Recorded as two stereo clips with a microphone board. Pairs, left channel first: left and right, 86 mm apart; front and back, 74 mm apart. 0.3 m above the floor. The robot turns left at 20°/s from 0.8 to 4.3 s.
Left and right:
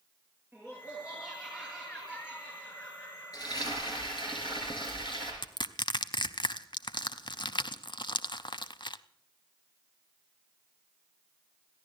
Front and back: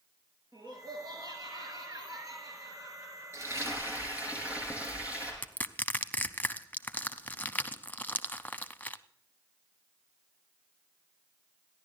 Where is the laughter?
160° right, 6 m; by 4.3 s 130° left, 6 m.